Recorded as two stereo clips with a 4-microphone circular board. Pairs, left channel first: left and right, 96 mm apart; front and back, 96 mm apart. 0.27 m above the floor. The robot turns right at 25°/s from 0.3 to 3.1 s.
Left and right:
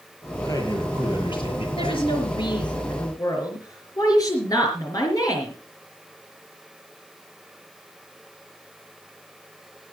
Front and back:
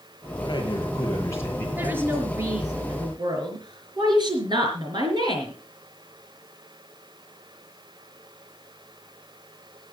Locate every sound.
0.4 s a man speaking: 35° left, 6 m; by 1.7 s 65° left, 6 m
1.8 s a woman speaking: 105° left, 4.5 m; by 5.5 s 140° left, 4.5 m